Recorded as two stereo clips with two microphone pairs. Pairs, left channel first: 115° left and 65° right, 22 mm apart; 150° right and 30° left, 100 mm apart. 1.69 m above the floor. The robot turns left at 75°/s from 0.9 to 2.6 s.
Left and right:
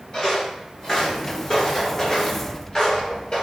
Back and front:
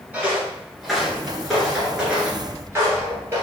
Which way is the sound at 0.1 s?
75° left.